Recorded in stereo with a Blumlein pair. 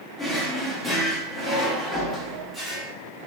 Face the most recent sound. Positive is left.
turn(degrees=0)